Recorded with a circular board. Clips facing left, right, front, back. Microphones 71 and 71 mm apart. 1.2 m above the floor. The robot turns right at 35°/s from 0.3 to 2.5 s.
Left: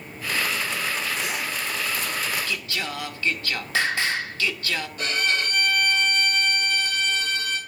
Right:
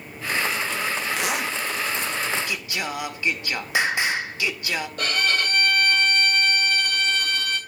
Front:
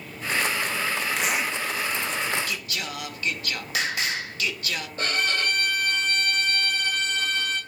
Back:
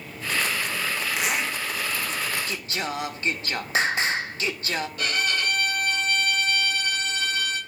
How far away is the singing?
About 0.6 m.